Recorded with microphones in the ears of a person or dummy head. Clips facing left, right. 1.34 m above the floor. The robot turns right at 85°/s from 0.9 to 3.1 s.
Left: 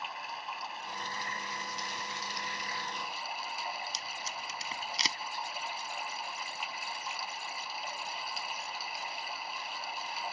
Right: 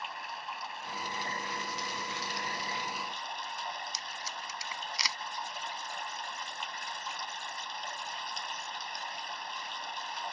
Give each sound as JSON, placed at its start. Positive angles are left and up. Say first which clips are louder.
{"t": 0.0, "sound": "running water", "louder": "even", "azimuth_deg": 175}
{"t": 3.9, "sound": "tape being pulled", "louder": "left 1 dB", "side_deg": 25}